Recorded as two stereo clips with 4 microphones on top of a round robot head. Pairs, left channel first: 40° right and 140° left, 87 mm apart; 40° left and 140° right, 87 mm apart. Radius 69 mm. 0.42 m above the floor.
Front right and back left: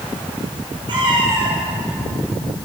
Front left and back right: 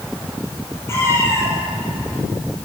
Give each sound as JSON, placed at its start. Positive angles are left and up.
{"t": 0.9, "sound": "a cat meowing", "azimuth_deg": 105, "distance_m": 8.0}